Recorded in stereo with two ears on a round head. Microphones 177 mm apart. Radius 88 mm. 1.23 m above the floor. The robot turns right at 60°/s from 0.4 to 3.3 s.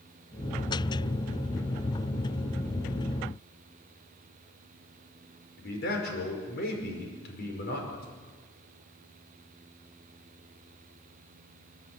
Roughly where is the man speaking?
Left.